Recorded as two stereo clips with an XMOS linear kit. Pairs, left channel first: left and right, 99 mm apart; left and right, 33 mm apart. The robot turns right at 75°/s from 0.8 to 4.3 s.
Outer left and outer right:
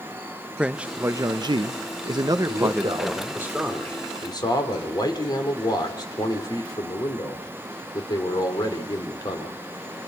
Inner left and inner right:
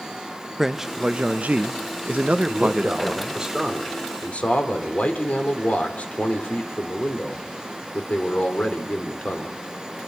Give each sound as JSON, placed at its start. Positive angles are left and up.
{"t": 0.6, "sound": "a man speaking", "azimuth_deg": -165, "distance_m": 0.6}
{"t": 2.5, "sound": "a man speaking", "azimuth_deg": -95, "distance_m": 3.5}